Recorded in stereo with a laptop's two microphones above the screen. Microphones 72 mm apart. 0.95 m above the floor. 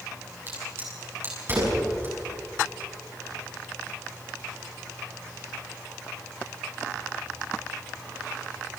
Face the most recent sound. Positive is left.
turn(degrees=-35)  # may be behind; listen again after turning